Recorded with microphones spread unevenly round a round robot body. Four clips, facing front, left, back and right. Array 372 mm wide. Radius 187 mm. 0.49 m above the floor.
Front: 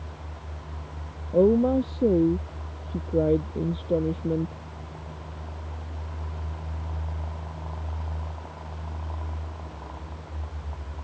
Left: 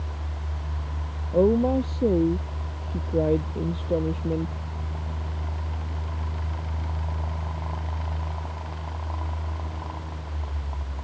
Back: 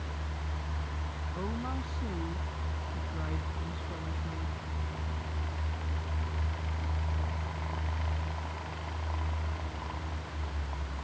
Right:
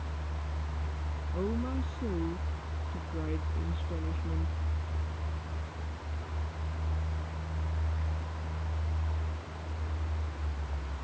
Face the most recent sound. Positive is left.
turn(degrees=40)